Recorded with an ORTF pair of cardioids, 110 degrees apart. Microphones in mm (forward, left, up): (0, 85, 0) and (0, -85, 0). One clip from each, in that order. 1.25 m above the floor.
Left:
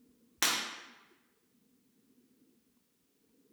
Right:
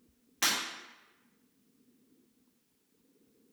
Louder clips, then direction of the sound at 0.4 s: Right 1 dB; 30° left.